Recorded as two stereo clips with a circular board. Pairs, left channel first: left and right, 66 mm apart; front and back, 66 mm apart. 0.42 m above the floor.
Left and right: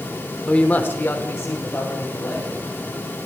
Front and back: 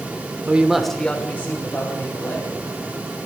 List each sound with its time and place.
0.5 s a man speaking: 145° left, 0.8 m; by 2.5 s 40° left, 2 m